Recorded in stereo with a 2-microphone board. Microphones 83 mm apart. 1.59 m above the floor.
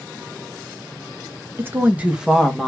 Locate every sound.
1.6 s a woman speaking: 30° right (ahead or behind), 1.0 m; by 2.7 s 5° left (ahead or behind), 1.1 m